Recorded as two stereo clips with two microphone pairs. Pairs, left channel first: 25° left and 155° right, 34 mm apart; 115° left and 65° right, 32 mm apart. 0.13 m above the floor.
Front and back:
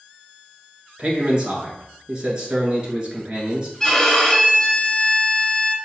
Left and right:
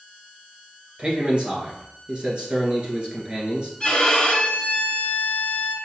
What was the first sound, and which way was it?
A man speaking, 100° right.